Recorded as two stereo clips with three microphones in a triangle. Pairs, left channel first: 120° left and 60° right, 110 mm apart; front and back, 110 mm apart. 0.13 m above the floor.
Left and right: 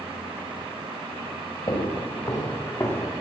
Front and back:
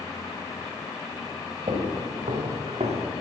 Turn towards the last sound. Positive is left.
turn(degrees=-170)